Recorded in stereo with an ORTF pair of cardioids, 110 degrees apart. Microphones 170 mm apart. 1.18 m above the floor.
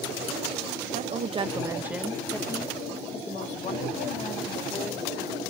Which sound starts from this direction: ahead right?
A woman speaking, at 0.9 s.